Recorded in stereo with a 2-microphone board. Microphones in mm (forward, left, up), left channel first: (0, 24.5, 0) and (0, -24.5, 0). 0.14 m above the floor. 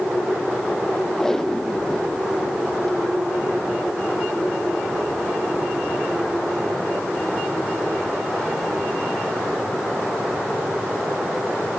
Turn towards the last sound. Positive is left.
turn(degrees=10)  # may be behind; listen again after turning